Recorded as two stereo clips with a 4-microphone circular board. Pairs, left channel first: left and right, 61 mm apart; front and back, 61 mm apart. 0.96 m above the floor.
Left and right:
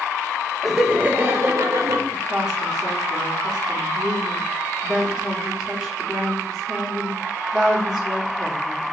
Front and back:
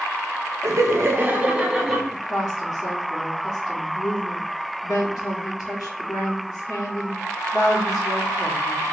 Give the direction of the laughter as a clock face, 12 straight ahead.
6 o'clock.